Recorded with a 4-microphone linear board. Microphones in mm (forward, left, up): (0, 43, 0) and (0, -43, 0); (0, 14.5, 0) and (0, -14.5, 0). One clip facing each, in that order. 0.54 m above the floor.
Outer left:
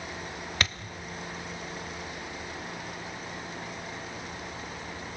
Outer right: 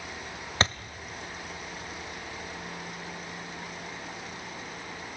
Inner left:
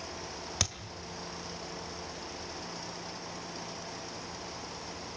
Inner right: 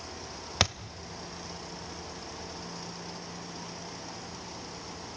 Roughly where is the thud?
Right.